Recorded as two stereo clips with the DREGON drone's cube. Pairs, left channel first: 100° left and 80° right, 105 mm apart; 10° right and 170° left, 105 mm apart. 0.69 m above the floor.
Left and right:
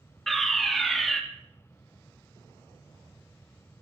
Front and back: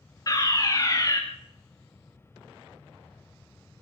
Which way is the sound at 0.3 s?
15° left.